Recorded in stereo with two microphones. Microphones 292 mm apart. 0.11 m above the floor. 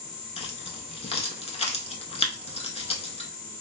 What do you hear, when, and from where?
0.4 s keys jangling: 20° left (ahead or behind), 0.8 m